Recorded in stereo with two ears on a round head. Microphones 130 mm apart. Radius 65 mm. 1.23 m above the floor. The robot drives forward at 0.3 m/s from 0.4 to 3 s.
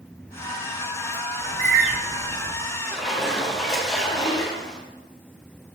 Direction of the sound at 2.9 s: Centre (ahead or behind).